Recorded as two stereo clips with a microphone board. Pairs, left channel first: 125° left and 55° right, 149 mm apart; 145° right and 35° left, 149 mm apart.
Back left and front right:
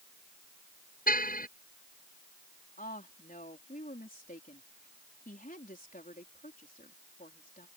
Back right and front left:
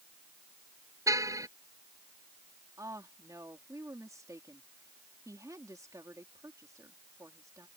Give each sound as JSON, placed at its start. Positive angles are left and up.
{"t": 1.1, "sound": "a car horn", "azimuth_deg": 105}
{"t": 2.8, "sound": "a woman speaking", "azimuth_deg": 100}